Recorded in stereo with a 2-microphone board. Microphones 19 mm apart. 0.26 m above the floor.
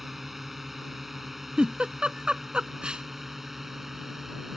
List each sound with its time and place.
0.0 s a drone: 10° right (ahead or behind); by 4.6 s 15° right (ahead or behind)
1.6 s a giggle: 65° right (ahead or behind)